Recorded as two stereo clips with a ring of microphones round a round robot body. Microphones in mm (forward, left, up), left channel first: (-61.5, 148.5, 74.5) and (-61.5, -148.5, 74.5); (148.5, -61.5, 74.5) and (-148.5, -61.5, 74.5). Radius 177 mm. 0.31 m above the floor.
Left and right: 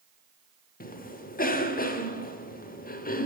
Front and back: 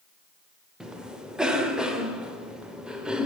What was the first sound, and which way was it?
A cough, 95° left.